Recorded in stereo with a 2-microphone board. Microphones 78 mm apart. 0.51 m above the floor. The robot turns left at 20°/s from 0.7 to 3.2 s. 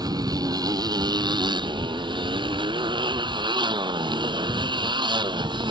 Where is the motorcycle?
55° right; by 5.7 s 105° right.